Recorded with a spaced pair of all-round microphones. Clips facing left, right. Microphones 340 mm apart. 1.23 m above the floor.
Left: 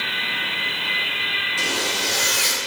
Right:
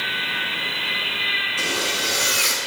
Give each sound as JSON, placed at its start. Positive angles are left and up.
{"t": 1.6, "sound": "a zipper", "side_deg": 5, "distance_m": 6.0}